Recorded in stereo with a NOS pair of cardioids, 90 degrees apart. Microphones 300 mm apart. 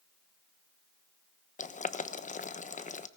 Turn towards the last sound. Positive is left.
turn(degrees=25)